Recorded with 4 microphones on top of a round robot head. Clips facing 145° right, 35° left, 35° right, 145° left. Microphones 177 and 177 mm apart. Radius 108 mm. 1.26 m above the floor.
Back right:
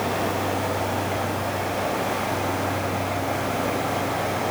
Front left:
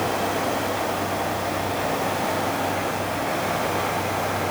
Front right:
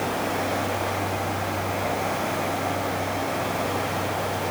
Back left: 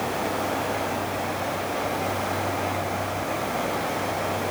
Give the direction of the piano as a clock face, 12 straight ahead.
No piano in this recording.